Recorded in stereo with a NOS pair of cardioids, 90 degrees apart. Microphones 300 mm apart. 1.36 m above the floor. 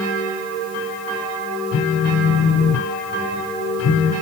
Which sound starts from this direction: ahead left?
A phone buzzing, at 1.7 s.